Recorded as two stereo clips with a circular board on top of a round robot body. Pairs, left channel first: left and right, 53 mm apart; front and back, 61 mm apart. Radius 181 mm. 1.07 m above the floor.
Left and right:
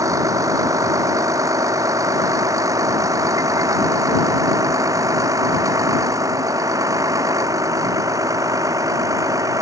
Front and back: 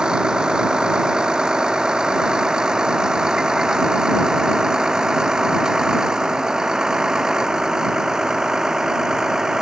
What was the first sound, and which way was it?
A vehicle, 100° right.